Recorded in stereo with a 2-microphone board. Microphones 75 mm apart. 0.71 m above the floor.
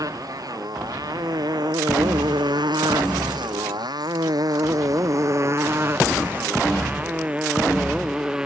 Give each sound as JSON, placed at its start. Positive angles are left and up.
{"t": 0.0, "sound": "a motorcycle", "side_deg": -55}